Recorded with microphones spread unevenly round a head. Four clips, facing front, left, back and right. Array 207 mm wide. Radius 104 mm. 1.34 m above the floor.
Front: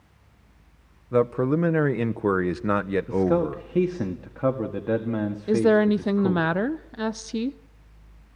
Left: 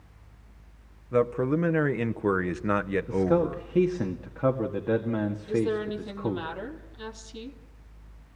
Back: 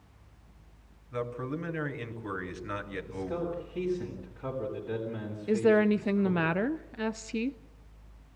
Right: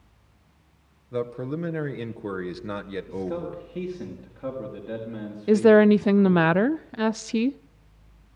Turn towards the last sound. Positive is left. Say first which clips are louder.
# right 14 dB, front 4 dB
turn(degrees=-75)